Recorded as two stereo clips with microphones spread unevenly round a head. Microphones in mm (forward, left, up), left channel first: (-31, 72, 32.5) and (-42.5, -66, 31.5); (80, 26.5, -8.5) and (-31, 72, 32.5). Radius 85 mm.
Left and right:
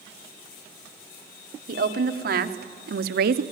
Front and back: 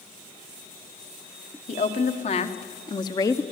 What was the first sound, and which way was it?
A woman speaking, 60° right.